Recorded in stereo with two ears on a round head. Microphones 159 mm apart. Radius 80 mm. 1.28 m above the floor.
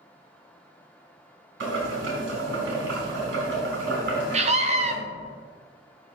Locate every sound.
1.6 s boiling: 75° right (ahead or behind), 3 m
4.3 s a scream: 40° right (ahead or behind), 0.6 m